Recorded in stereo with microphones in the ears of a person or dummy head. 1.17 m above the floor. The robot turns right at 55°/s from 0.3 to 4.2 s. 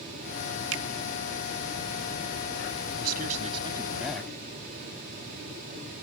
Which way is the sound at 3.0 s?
65° right.